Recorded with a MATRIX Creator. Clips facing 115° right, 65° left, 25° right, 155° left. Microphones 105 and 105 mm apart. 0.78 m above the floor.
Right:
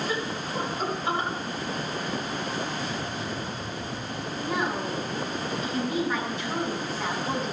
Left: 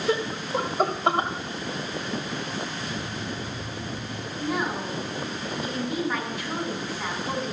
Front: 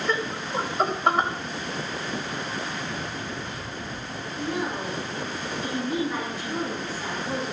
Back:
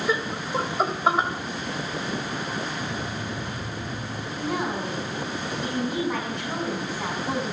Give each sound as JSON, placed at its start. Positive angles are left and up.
{"t": 0.1, "sound": "laughter", "azimuth_deg": 70, "distance_m": 3.0}
{"t": 2.8, "sound": "an alarm clock", "azimuth_deg": 135, "distance_m": 6.0}
{"t": 4.4, "sound": "a woman speaking", "azimuth_deg": 155, "distance_m": 7.5}